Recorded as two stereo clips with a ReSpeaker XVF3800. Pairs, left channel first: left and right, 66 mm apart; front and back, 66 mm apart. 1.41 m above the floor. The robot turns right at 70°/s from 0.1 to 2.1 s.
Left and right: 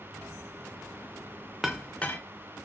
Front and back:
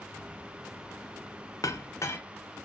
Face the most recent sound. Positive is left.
turn(degrees=30)